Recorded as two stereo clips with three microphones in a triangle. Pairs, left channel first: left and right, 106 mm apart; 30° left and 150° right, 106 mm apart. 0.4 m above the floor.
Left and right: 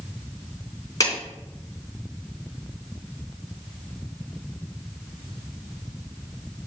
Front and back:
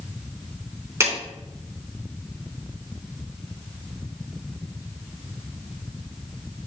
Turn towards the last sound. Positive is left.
turn(degrees=145)